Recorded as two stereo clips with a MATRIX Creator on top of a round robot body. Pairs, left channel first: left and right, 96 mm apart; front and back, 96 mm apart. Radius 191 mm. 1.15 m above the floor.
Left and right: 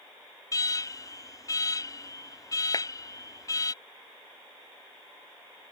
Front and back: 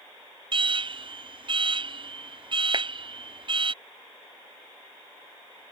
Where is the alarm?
145° left.